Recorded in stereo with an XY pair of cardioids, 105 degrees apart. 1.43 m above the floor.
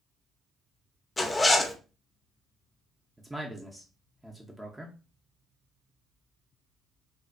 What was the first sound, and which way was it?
A zipper, 25° left.